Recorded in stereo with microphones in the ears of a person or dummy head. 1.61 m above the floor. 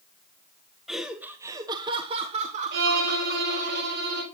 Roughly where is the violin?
Right.